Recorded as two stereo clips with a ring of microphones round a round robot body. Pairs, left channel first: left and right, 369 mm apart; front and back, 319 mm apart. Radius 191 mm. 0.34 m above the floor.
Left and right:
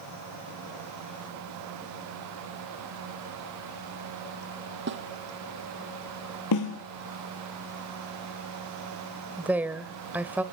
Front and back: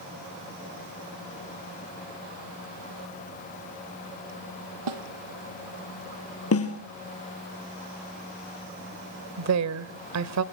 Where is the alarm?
No alarm in this recording.